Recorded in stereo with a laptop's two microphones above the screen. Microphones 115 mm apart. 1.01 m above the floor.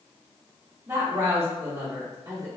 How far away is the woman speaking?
About 1.0 m.